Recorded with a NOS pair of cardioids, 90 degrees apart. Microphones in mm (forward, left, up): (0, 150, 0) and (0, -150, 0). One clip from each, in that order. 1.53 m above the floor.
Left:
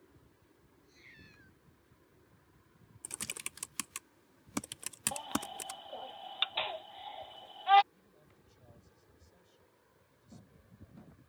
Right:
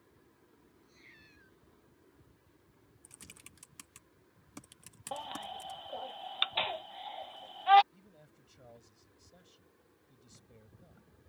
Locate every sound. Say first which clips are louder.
0.8 s a cat meowing: left 2 dB; 5° left
3.0 s typing on a keyboard: left 13 dB; 55° left
5.1 s a baby crying: right 2 dB; 15° right
7.9 s a man speaking: right 3 dB; 60° right